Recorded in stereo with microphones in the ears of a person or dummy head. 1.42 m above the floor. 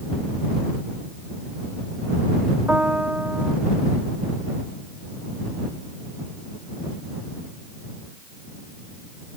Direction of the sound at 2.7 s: 10° right (ahead or behind).